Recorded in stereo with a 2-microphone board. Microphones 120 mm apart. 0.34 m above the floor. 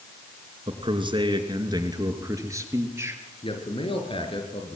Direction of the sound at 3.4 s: 50° left (ahead or behind).